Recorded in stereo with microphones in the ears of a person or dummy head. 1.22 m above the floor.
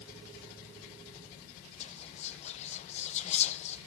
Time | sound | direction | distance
1.8 | whispering | 40° left (ahead or behind) | 0.7 m